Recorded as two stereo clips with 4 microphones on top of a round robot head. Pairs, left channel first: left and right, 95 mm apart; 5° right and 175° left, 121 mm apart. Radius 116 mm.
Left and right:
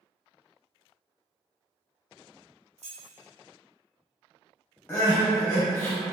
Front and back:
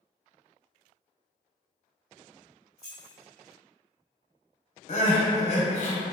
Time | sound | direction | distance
2.8 | keys jangling | 95° right | 0.9 m
4.9 | crying | 25° left | 0.8 m